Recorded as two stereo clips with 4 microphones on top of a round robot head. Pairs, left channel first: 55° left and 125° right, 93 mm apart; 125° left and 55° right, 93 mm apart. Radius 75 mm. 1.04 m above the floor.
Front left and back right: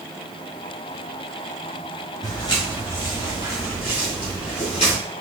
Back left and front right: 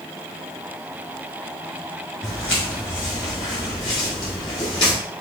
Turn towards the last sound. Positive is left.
turn(degrees=80)